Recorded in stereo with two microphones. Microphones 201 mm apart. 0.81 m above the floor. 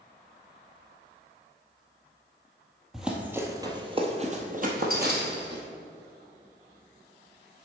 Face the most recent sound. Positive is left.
turn(degrees=-60)  # may be behind; listen again after turning